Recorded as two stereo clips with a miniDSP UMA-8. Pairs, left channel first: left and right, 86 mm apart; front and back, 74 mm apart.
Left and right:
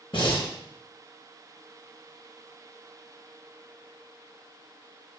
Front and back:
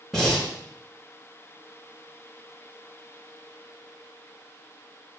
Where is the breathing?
90° left, 2 m.